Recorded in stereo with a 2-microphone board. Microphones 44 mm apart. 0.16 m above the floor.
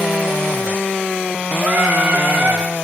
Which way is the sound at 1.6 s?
55° right (ahead or behind).